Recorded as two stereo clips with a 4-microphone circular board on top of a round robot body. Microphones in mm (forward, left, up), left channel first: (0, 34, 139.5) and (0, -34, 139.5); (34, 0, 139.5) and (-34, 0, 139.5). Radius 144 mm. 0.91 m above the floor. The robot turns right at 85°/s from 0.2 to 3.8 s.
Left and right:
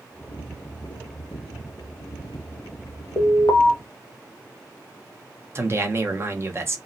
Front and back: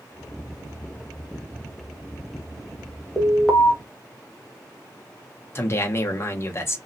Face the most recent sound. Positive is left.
turn(degrees=-45)